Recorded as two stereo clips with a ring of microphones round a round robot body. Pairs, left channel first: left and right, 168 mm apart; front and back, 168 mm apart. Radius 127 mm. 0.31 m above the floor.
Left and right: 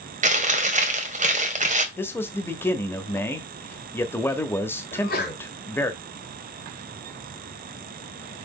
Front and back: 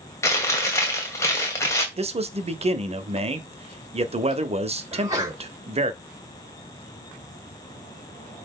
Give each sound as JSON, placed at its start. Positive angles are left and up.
{"t": 0.2, "sound": "chewing", "azimuth_deg": -70, "distance_m": 2.0}
{"t": 2.0, "sound": "a man speaking", "azimuth_deg": 160, "distance_m": 1.2}
{"t": 4.9, "sound": "a sneeze", "azimuth_deg": 115, "distance_m": 3.5}